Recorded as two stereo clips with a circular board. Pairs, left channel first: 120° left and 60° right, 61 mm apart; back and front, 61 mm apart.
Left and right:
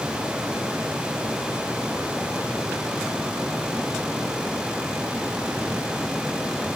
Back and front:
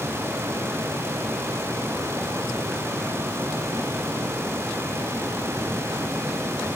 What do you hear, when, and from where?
Only background noise.